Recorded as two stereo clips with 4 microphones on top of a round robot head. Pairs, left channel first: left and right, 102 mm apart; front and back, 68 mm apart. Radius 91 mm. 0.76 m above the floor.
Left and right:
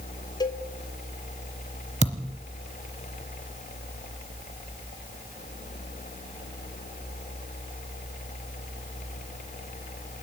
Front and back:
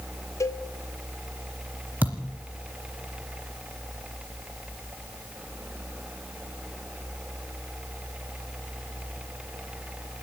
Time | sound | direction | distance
0.4 | a cowbell | 40° left | 2 m
2.0 | a thud | 105° right | 0.8 m